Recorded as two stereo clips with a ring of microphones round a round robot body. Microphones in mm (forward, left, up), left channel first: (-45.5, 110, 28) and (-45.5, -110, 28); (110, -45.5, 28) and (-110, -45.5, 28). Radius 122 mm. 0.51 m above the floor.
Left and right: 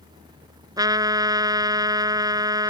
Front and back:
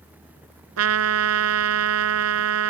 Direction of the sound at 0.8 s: 165° right.